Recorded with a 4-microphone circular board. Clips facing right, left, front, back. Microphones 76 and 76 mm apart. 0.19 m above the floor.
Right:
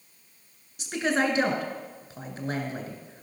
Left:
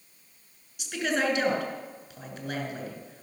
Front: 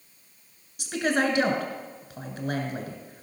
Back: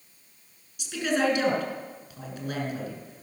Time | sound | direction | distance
0.8 | a woman speaking | 45° right | 2.5 m